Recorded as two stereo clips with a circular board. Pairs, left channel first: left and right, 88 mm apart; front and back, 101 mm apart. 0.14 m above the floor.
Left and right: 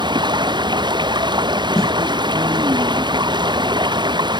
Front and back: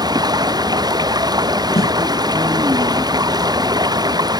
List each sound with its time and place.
0.0 s running water: 130° right
1.8 s a snare drum: 5° left